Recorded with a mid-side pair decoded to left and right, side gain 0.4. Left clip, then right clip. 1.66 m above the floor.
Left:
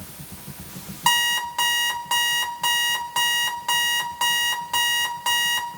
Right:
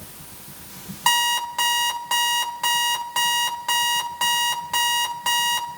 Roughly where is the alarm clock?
Ahead.